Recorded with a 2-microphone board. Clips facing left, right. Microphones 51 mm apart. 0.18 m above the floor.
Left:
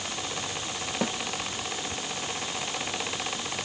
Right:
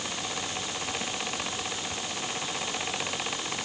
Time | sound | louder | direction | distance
1.0 | a snare drum | left 5 dB | 85° left | ?